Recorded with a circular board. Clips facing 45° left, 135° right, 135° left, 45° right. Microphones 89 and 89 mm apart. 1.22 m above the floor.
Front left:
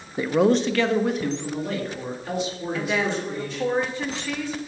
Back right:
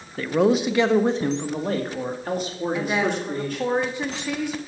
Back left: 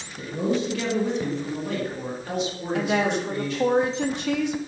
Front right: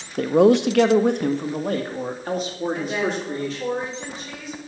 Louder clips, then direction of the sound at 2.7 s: Back right 1 dB, back left 5 dB; 155° left.